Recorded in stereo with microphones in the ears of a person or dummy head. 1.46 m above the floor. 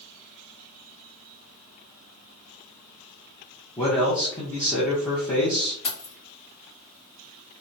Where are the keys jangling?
40° left (ahead or behind), 1.0 m.